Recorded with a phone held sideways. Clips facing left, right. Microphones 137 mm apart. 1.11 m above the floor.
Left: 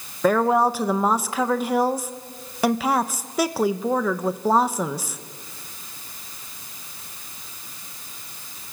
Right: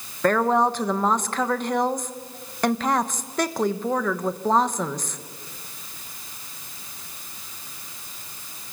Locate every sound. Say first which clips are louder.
0.2 s a woman speaking: left 1 dB; 5° left (ahead or behind), 1.0 m